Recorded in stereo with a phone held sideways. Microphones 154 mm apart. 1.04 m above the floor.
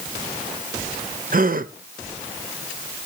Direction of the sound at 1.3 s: 65° right (ahead or behind).